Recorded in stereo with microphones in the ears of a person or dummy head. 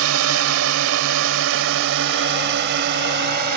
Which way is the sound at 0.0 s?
85° right.